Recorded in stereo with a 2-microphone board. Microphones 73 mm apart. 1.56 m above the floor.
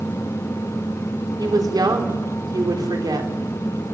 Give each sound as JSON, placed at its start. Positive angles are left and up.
{"t": 1.4, "sound": "a woman speaking", "side_deg": -65, "distance_m": 4.0}